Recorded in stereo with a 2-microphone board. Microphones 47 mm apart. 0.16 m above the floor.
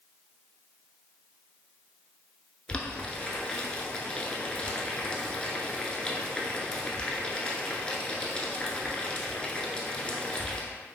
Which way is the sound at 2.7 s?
25° left (ahead or behind).